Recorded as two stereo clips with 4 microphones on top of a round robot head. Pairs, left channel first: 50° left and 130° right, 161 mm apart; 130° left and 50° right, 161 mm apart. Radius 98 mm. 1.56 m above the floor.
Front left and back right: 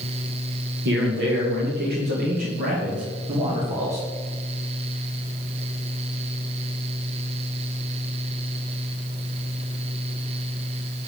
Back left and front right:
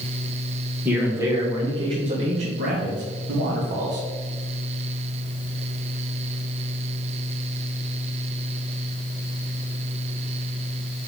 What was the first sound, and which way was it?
A man speaking, 130° right.